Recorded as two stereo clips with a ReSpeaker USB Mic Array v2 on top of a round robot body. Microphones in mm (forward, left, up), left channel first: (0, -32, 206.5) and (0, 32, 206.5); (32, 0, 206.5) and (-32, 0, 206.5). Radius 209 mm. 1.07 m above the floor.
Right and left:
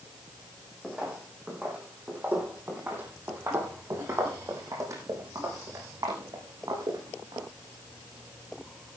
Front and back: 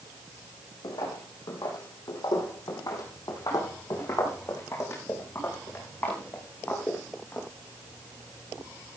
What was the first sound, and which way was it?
Footsteps, 10° left.